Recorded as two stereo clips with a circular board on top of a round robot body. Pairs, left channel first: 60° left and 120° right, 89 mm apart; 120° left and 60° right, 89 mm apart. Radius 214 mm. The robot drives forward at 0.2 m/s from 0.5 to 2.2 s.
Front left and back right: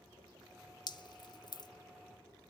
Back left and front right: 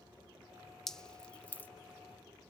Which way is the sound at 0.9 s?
35° left.